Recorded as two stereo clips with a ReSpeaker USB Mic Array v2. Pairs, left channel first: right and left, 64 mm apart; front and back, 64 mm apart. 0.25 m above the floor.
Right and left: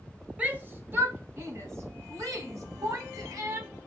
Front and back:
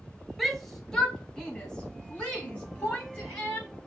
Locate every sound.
0.4 s a shout: 85° left, 1.1 m; by 3.7 s 65° left, 3 m